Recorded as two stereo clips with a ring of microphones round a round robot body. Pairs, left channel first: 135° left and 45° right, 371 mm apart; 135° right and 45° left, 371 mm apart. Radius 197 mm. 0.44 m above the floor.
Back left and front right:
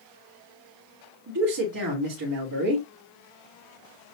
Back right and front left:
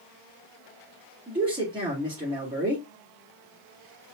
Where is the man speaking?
30° right, 2.0 m.